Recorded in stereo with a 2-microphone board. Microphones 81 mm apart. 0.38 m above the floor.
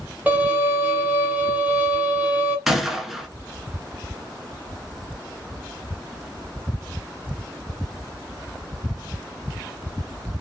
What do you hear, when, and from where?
0.3 s a violin: 20° right (ahead or behind), 1.1 m
2.7 s a gunshot: 5° right (ahead or behind), 0.6 m